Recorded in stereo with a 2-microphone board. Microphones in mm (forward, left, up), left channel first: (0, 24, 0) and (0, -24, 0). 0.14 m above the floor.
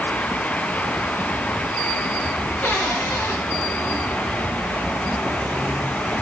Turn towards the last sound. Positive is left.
turn(degrees=40)  # may be behind; listen again after turning